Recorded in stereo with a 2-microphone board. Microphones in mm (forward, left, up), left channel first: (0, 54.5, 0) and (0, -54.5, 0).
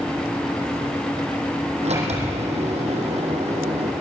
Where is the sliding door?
80° right, 5 m.